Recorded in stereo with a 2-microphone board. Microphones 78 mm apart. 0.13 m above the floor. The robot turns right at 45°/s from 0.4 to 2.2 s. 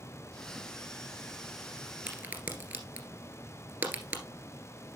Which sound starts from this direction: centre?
A crack, at 2.1 s.